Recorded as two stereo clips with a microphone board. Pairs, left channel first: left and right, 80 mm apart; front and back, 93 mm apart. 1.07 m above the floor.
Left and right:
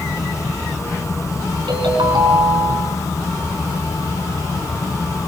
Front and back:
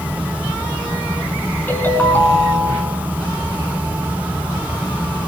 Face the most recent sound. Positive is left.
turn(degrees=-70)